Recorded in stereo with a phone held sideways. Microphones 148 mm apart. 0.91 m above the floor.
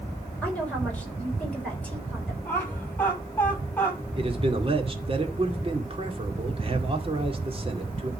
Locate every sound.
0.4 s a woman speaking: 10° left (ahead or behind), 4 m
2.5 s laughter: 15° left (ahead or behind), 7 m
4.2 s a man speaking: 40° right (ahead or behind), 1.9 m